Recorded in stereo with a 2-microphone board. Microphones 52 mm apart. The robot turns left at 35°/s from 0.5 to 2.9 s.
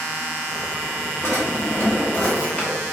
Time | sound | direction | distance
1.2 | a drawer | 75° left | 1.3 m